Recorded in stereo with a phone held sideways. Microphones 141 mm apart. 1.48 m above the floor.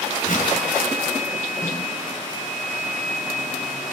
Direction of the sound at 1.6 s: 25° left (ahead or behind).